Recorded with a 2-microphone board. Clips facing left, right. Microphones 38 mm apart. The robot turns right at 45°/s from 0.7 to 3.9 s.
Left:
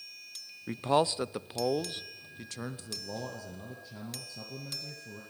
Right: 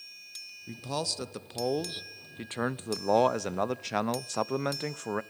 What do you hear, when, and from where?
0.7 s a man speaking: 140° left, 0.6 m; by 5.2 s 80° right, 0.6 m